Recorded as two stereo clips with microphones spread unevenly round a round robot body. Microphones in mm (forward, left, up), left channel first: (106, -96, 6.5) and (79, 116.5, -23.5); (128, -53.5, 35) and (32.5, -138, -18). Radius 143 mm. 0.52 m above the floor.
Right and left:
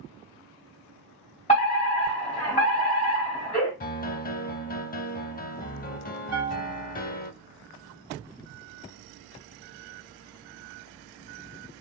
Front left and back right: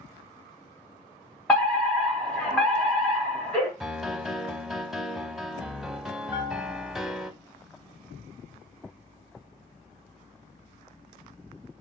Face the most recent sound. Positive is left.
turn(degrees=140)